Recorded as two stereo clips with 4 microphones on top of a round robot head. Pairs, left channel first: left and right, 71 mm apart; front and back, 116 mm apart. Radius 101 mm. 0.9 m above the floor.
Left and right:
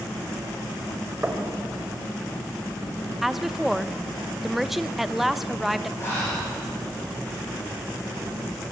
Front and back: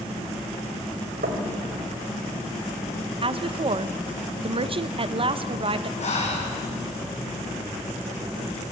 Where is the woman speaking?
175° right, 1.1 m.